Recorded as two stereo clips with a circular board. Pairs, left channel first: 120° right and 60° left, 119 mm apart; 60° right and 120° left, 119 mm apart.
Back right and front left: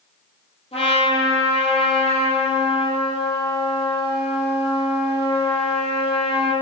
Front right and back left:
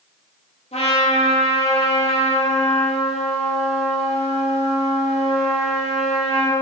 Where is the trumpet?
85° right, 4.5 m.